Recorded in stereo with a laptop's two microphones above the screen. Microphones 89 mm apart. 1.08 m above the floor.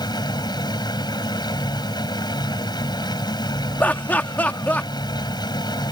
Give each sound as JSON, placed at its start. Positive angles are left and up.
{"t": 0.0, "sound": "a machine running", "side_deg": 50}
{"t": 3.8, "sound": "laughter", "side_deg": 20}